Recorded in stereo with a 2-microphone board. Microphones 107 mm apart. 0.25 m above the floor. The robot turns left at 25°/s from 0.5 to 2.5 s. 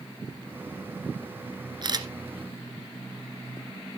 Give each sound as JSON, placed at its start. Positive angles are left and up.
{"t": 1.8, "sound": "a camera shutter", "side_deg": -45, "distance_m": 1.4}